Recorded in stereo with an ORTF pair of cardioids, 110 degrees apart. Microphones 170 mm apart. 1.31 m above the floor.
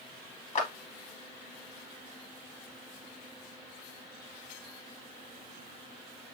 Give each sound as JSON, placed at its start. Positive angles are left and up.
{"t": 0.6, "sound": "a clap", "azimuth_deg": 45, "distance_m": 1.7}